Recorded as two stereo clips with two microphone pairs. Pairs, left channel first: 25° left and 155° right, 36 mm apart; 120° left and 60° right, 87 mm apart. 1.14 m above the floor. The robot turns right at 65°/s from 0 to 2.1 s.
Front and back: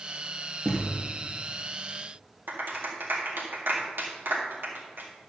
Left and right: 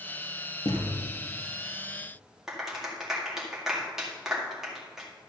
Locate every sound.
0.7 s a thud: 90° left, 2.5 m; by 1.0 s 110° left, 2.5 m
2.5 s a clap: 150° right, 1.9 m